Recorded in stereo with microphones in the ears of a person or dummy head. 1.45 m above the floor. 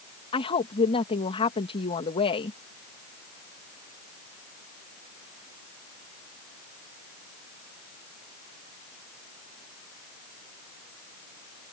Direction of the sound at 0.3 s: 30° left (ahead or behind).